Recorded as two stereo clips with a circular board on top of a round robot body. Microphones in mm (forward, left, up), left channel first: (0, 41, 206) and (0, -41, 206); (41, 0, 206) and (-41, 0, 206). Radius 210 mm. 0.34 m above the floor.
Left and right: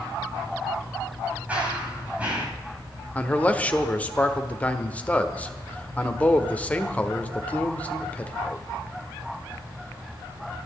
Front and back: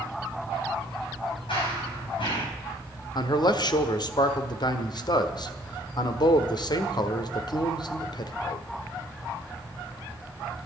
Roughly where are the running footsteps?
Ahead.